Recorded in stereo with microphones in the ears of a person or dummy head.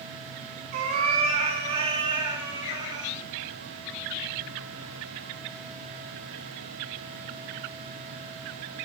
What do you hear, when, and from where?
0.7 s a cat meowing: 45° right (ahead or behind), 3 m; by 3.1 s 20° right (ahead or behind), 4.5 m